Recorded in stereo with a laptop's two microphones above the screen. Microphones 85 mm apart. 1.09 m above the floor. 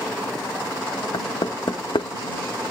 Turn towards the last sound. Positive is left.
turn(degrees=75)  # may be behind; listen again after turning